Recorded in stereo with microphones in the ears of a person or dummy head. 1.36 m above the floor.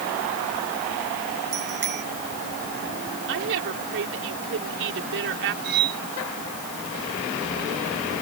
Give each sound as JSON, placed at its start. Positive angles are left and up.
{"t": 1.5, "sound": "a bicycle bell", "side_deg": -50}
{"t": 3.3, "sound": "a woman speaking", "side_deg": -70}
{"t": 5.6, "sound": "cutlery clinking", "side_deg": -55}